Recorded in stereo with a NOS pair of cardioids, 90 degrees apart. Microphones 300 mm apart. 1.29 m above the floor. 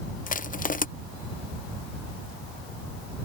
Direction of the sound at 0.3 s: 25° left.